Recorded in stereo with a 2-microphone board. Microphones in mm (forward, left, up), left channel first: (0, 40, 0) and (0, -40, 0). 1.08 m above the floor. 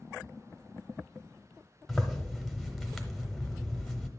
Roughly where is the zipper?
Centre.